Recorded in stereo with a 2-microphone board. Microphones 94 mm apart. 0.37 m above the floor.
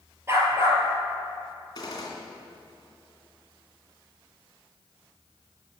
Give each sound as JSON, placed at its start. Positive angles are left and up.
{"t": 0.3, "sound": "a dog barking", "side_deg": -30, "distance_m": 2.5}
{"t": 1.8, "sound": "a gunshot", "side_deg": 40, "distance_m": 2.5}